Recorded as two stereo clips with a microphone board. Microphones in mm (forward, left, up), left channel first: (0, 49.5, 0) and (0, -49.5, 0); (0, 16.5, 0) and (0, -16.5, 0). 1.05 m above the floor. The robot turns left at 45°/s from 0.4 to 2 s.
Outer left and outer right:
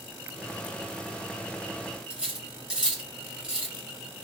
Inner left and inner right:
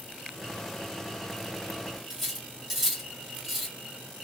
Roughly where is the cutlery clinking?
Centre.